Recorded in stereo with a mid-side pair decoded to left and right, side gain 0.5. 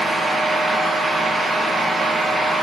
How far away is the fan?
About 0.8 m.